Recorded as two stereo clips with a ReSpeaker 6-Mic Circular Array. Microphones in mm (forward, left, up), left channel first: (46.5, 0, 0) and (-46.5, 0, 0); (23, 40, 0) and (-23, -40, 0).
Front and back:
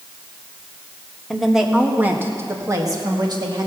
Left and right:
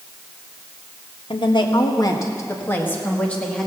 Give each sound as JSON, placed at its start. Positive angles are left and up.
{"t": 1.3, "sound": "a woman speaking", "azimuth_deg": 90, "distance_m": 1.3}